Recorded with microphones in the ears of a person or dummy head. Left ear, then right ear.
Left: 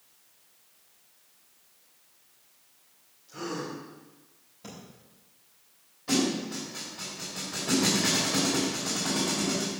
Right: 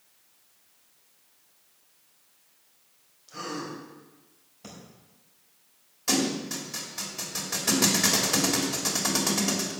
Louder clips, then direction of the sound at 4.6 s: Left 1 dB; 10° right (ahead or behind).